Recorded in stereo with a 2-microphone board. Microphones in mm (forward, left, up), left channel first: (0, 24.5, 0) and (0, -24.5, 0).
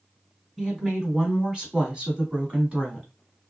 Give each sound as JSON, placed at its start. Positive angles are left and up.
{"t": 0.6, "sound": "a woman speaking", "side_deg": -10, "distance_m": 1.5}